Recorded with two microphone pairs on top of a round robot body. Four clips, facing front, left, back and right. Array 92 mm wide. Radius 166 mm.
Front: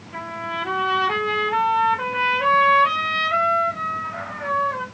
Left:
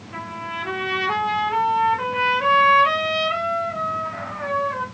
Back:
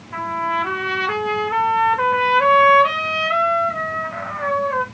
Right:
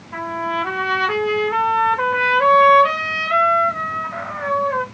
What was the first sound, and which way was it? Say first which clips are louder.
A trumpet: right 8 dB, back 7 dB; 135° right.